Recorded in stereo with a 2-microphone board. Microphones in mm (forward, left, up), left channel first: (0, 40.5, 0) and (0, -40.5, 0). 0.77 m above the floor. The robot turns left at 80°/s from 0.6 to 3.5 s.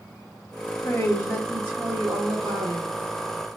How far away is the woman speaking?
About 1.5 m.